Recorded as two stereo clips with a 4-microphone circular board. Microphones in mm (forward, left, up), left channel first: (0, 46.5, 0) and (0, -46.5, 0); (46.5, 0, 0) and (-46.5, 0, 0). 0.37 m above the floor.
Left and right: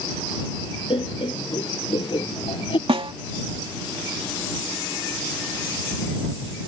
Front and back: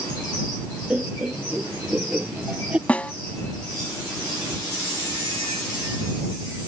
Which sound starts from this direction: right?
A snare drum, at 2.9 s.